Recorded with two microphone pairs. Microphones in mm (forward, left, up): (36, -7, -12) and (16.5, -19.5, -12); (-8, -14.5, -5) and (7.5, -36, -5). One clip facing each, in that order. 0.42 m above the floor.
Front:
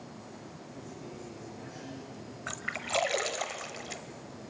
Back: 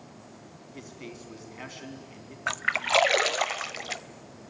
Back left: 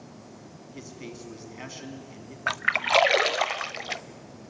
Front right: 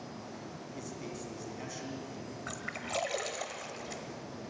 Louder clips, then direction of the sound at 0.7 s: Back 4 dB, back left 3 dB; 175° right.